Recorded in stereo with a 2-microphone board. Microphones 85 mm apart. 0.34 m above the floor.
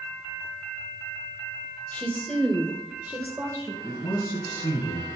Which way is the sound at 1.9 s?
20° left (ahead or behind).